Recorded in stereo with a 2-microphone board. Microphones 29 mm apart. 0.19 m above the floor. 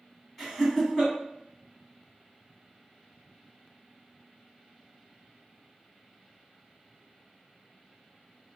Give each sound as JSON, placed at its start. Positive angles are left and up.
{"t": 0.4, "sound": "laughter", "side_deg": 5, "distance_m": 1.7}